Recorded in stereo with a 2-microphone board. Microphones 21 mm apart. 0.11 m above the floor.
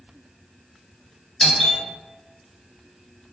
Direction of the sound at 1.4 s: 15° left (ahead or behind).